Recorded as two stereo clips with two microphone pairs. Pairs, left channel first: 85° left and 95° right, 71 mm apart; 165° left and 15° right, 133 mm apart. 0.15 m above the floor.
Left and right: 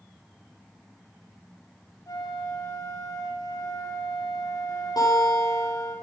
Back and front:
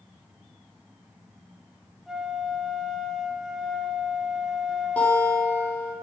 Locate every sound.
2.1 s a flute: 75° left, 3 m
5.0 s a guitar: 90° left, 6.5 m